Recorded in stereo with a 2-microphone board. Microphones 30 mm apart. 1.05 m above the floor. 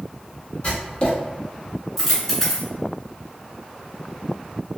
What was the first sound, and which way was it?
Writing, 40° left (ahead or behind).